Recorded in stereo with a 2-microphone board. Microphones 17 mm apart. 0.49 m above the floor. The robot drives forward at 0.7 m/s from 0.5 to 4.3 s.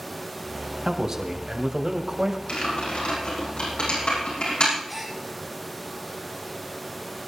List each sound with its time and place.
0.8 s a man speaking: 35° right (ahead or behind), 3 m; by 2.4 s 45° right (ahead or behind), 2.5 m
2.5 s typing on a keyboard: 85° left, 9.5 m
4.9 s a gasp: 5° right (ahead or behind), 3.5 m